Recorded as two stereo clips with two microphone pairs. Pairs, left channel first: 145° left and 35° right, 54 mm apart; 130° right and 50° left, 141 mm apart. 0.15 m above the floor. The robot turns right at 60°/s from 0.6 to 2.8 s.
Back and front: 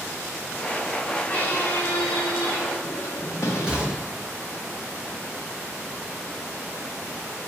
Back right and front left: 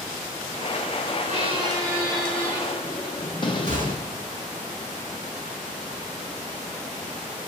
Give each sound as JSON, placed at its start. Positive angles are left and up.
{"t": 1.3, "sound": "a squeak", "azimuth_deg": 90, "distance_m": 0.7}
{"t": 3.7, "sound": "a gunshot", "azimuth_deg": 35, "distance_m": 1.0}